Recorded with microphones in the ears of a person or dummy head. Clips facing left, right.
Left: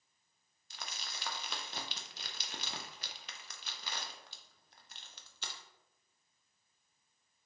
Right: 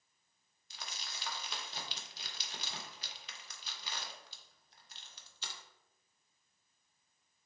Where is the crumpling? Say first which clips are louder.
Left 1 dB; 55° left (ahead or behind), 0.5 m.